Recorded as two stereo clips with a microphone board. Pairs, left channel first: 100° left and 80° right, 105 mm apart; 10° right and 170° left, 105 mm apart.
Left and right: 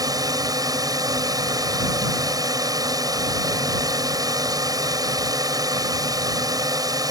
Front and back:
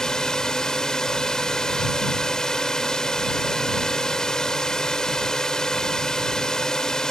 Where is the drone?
90° right.